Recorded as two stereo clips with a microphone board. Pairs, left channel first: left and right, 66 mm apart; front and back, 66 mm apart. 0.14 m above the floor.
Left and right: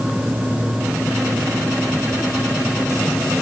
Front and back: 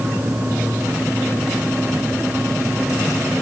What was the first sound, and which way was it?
Only background noise.